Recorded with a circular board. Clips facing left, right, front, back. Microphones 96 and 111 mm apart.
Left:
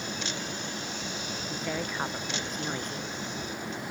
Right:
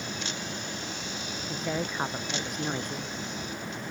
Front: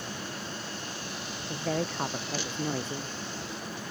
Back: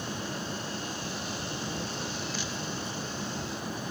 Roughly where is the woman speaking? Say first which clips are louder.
Right 3 dB, front 4 dB; ahead.